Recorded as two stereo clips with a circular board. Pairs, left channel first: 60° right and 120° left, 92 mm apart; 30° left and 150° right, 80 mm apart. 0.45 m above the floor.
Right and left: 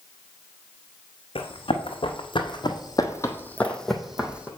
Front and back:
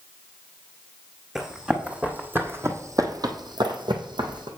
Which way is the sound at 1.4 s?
70° right.